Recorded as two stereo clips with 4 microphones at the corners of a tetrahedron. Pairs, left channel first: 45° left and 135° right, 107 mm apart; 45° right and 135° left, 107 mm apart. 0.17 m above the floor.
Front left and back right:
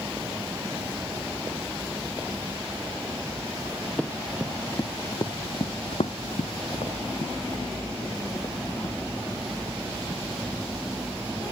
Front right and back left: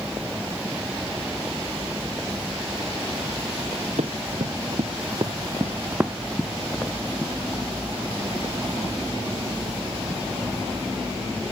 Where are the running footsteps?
125° left, 1.4 m; by 11.5 s 5° right, 4 m.